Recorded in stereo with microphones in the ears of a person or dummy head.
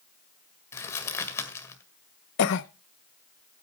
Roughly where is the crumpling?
Centre.